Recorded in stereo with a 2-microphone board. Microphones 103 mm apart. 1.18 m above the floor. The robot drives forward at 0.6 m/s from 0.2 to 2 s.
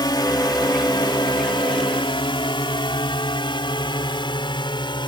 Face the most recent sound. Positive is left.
turn(degrees=50)  # may be behind; listen again after turning